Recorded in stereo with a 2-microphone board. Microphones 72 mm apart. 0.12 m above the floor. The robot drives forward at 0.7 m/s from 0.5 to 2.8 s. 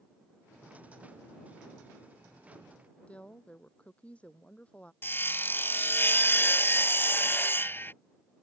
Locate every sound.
3.1 s a woman speaking: 15° left (ahead or behind)
5.0 s sawing: 30° left (ahead or behind)